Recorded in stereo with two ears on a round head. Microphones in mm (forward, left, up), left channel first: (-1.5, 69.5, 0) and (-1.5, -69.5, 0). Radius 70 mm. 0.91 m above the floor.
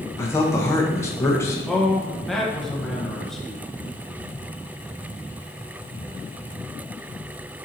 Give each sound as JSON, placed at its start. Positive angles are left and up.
{"t": 0.2, "sound": "a man speaking", "side_deg": 15, "distance_m": 0.6}
{"t": 1.7, "sound": "a man speaking", "side_deg": 0, "distance_m": 0.7}